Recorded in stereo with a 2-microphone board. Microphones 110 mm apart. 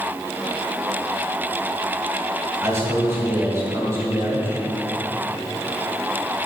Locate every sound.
2.6 s a man speaking: 25° right (ahead or behind), 1.9 m